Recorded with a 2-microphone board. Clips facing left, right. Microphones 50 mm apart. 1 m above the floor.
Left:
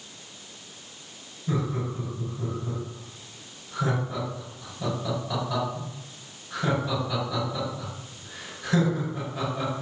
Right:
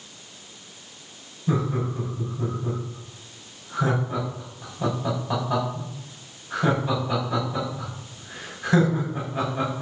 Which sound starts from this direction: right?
Laughter, at 1.5 s.